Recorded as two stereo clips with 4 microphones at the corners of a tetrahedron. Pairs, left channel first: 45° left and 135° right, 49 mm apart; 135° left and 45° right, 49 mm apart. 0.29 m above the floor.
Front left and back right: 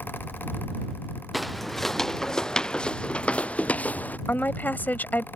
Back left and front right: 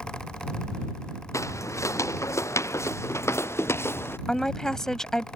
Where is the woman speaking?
60° left.